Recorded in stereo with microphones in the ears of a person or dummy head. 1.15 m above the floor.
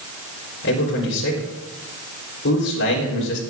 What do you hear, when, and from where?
0.6 s a man speaking: 65° left (ahead or behind), 3 m